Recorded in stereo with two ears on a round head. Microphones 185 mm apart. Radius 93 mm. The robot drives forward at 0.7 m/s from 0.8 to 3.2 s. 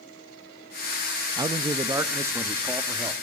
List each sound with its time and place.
1.4 s a man speaking: 20° right (ahead or behind), 0.7 m; by 3.1 s 10° right (ahead or behind), 1.6 m